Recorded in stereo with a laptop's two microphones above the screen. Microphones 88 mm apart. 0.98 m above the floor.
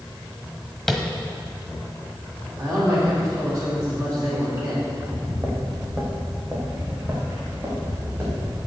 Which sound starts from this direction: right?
A man speaking, at 2.6 s.